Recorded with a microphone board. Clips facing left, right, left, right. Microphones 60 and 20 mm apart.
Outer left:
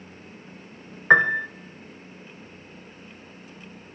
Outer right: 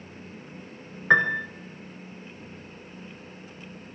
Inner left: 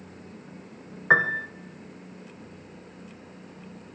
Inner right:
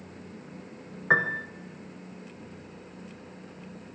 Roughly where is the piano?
Centre.